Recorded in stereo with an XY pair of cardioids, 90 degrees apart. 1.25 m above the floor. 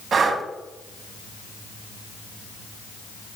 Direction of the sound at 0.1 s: 55° right.